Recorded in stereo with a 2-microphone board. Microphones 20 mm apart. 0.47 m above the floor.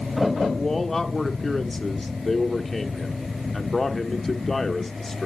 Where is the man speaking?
15° left (ahead or behind), 0.9 m.